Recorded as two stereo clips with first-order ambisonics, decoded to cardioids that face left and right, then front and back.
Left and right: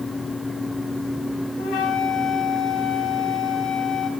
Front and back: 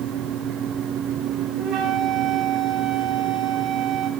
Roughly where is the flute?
Behind left.